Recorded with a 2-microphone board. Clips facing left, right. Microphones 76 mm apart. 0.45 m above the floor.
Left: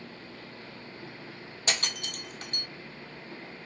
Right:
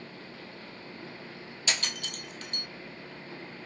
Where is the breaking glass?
40° left (ahead or behind), 1.0 m.